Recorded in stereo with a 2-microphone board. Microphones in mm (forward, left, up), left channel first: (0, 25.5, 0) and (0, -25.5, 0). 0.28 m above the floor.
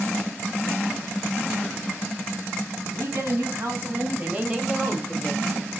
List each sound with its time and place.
2.9 s a woman speaking: 60° right (ahead or behind), 2.5 m; by 5.4 s 25° left (ahead or behind), 1.4 m